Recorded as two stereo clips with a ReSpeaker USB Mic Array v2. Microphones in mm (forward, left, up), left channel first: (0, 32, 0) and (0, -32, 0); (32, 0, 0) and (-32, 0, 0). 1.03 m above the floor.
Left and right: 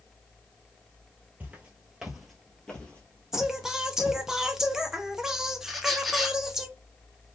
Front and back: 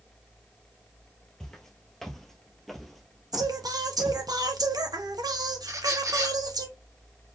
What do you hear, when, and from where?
1.4 s footsteps: 75° right, 1.1 m; by 4.2 s 95° left, 1.4 m
3.3 s singing: 170° right, 0.5 m
5.7 s a squeak: straight behind, 0.6 m